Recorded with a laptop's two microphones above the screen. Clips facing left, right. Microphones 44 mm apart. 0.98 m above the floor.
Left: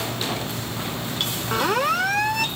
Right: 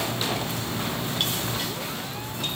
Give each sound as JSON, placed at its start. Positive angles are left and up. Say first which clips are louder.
{"t": 1.5, "sound": "a siren", "louder": "left 10 dB", "side_deg": 85}